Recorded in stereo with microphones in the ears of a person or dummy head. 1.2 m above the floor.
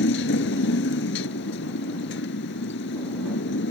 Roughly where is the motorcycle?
Left.